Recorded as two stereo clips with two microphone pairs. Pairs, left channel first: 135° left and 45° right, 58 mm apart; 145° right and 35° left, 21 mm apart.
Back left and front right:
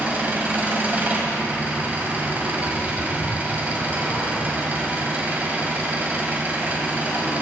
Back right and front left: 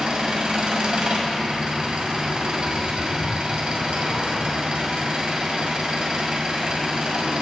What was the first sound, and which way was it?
An engine running, 10° left.